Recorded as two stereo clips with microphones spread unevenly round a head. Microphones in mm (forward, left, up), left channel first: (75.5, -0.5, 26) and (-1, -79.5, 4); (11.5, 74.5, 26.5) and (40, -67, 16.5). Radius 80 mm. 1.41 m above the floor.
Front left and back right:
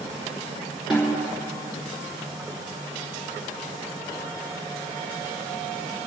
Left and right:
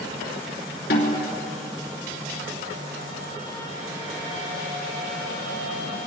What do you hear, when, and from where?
0.9 s a snare drum: 135° left, 3 m